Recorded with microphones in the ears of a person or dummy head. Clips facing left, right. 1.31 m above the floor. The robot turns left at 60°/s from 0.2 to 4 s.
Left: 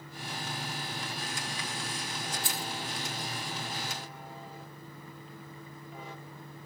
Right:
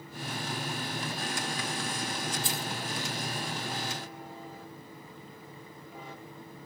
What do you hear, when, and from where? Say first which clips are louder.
2.4 s keys jangling: right 2 dB; 45° left (ahead or behind), 1.6 m; by 2.7 s 30° left (ahead or behind), 1.6 m